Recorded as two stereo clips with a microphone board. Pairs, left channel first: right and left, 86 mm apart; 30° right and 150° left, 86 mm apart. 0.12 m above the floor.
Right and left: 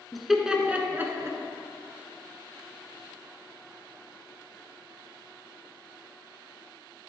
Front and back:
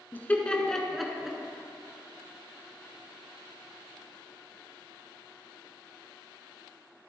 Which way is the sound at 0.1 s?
5° right.